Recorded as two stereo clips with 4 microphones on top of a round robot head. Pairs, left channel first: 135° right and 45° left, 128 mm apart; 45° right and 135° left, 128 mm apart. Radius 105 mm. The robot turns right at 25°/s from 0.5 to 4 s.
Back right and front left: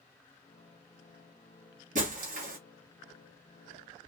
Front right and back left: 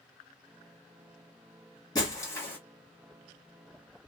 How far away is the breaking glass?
About 1.0 m.